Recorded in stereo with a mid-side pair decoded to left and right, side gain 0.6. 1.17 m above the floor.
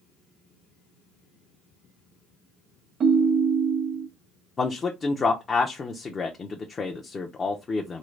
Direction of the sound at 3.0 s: 40° right.